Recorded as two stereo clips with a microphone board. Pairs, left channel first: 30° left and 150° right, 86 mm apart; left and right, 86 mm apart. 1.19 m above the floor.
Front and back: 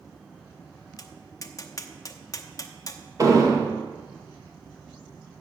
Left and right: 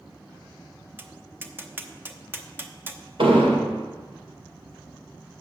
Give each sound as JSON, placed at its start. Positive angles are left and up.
{"t": 1.0, "sound": "tapping", "azimuth_deg": -25, "distance_m": 0.7}
{"t": 3.2, "sound": "an explosion", "azimuth_deg": -100, "distance_m": 1.8}